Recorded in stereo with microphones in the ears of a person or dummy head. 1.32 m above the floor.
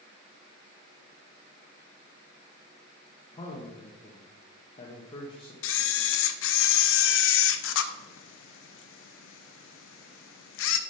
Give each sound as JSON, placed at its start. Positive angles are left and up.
{"t": 3.3, "sound": "a man speaking", "side_deg": 30, "distance_m": 1.2}
{"t": 5.6, "sound": "a camera shutter", "side_deg": 75, "distance_m": 0.7}